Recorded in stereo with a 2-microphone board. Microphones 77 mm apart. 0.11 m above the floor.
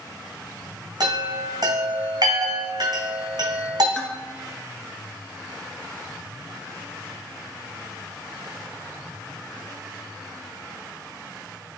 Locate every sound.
1.0 s a chime: 55° right (ahead or behind), 1.9 m
4.0 s dishes clattering: 10° left (ahead or behind), 0.9 m